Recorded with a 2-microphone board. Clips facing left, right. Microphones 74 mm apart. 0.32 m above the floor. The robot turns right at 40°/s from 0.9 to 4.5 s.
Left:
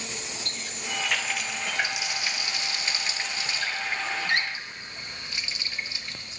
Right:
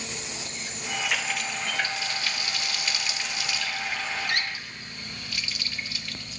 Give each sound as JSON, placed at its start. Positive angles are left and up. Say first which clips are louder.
{"t": 0.5, "sound": "a running tap", "louder": "right 1 dB", "side_deg": -10, "distance_m": 0.6}